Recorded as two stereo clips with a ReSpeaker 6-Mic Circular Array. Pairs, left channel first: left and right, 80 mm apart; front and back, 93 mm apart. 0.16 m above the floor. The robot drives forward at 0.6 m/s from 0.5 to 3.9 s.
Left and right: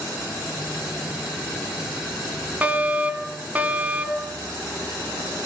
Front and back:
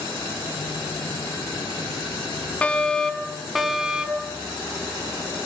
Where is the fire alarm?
55° right, 2 m; by 4.3 s 110° right, 2 m.